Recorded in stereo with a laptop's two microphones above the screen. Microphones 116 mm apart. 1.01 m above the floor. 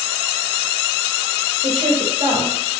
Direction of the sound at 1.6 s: 60° right (ahead or behind).